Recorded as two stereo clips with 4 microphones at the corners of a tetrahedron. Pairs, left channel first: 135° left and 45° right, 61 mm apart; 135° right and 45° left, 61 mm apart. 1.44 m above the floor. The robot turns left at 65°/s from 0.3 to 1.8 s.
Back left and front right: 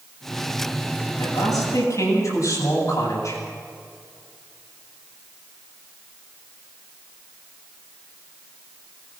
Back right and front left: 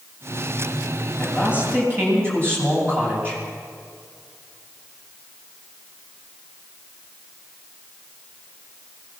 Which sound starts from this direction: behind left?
A man speaking, at 1.2 s.